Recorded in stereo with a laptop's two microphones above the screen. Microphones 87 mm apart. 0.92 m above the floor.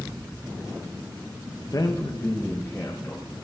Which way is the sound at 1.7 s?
45° left (ahead or behind).